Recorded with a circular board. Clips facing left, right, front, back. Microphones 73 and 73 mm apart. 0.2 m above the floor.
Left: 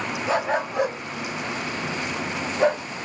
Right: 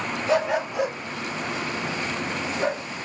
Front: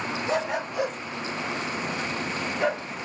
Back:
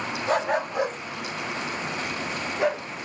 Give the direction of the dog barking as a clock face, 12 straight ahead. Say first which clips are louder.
Right 1 dB, back 4 dB; 7 o'clock.